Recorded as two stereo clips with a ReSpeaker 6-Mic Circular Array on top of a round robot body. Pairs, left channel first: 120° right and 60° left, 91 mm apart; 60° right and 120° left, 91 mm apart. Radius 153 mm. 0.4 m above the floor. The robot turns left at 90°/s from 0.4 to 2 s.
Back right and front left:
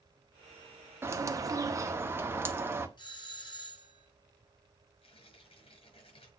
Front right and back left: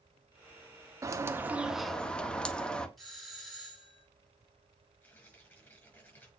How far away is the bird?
About 1.6 m.